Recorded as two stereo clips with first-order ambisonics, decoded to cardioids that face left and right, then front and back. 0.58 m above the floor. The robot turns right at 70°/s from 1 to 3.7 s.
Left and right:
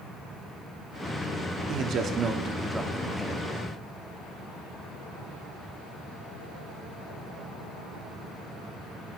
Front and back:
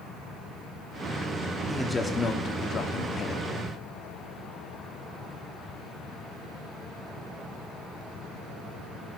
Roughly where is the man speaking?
Right.